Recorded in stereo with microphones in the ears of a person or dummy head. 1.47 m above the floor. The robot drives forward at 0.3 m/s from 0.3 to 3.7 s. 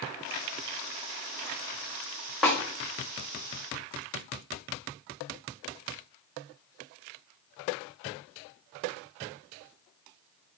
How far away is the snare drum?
About 0.8 m.